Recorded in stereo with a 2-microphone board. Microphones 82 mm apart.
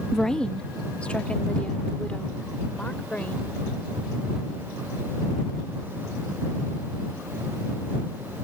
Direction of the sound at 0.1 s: 5° left (ahead or behind).